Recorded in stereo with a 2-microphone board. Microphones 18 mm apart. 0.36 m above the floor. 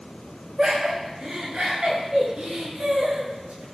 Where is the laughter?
45° right (ahead or behind), 4.5 m; by 3.6 s 75° right (ahead or behind), 6.5 m.